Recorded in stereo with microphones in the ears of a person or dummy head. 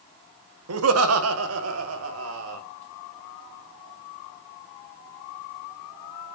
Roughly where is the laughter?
Right.